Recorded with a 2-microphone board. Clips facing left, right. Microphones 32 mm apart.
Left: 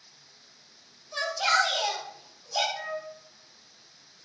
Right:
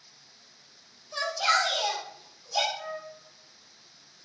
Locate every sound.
1.1 s a shout: 10° left (ahead or behind), 1.8 m; by 2.6 s 5° right (ahead or behind), 1.4 m
2.7 s a flute: 80° left, 0.8 m